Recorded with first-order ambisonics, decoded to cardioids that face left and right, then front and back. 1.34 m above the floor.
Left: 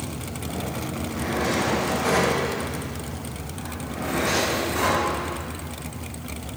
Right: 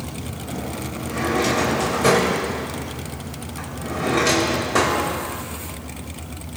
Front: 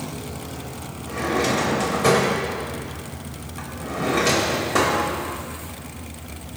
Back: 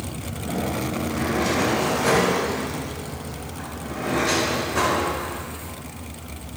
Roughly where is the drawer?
Ahead right.